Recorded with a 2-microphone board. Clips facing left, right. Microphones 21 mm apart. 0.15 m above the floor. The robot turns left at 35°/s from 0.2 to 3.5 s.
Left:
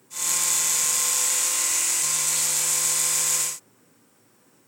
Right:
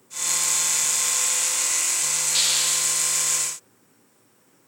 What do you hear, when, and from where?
2.3 s a hiss: 45° right (ahead or behind); by 3.0 s 70° right (ahead or behind)